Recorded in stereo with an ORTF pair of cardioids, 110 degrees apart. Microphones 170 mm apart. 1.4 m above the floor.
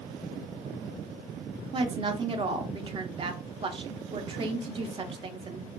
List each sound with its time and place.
1.7 s a woman speaking: 30° right, 0.6 m